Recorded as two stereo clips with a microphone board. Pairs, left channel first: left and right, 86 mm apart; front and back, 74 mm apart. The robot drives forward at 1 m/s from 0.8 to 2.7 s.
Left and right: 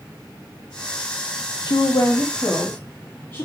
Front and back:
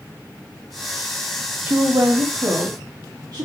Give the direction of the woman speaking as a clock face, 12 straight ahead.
8 o'clock.